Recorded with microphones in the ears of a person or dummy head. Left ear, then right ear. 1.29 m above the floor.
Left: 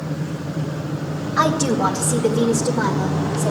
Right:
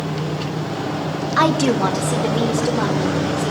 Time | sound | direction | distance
1.4 | a woman speaking | 35° right (ahead or behind) | 1.1 m